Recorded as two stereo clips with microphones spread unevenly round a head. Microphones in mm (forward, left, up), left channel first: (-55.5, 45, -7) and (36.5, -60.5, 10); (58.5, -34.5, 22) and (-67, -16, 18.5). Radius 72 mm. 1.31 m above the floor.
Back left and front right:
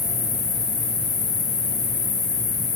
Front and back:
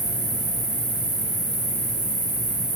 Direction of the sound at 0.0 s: 95° left.